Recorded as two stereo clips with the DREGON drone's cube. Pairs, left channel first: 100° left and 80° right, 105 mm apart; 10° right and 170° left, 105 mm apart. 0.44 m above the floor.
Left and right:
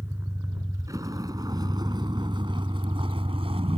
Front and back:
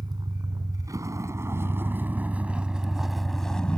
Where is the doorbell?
No doorbell in this recording.